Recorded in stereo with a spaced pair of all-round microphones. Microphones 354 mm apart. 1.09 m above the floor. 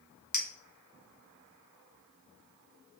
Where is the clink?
55° left (ahead or behind), 0.7 m.